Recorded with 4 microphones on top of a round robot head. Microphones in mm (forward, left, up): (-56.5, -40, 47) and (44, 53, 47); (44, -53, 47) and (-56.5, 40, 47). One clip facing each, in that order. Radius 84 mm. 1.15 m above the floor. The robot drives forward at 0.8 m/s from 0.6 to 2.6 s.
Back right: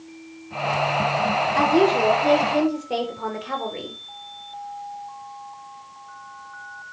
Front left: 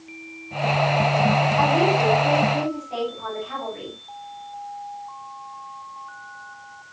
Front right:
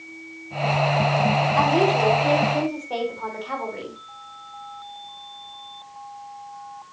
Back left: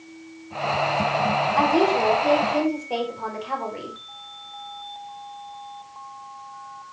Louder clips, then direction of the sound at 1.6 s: Back right 4 dB, back left 1 dB; 135° right.